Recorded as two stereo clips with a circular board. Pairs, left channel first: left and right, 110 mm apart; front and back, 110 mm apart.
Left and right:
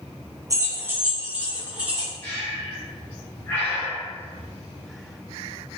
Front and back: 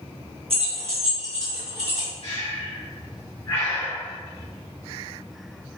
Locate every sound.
0.5 s keys jangling: 150° right, 0.7 m; by 2.1 s 170° right, 1.8 m
2.2 s breathing: 25° left, 1.7 m